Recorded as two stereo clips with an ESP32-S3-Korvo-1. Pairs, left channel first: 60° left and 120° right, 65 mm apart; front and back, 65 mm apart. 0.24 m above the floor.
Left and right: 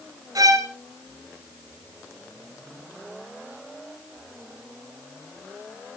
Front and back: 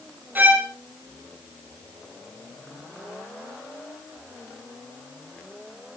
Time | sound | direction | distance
0.3 | a violin | 120° right | 2.5 m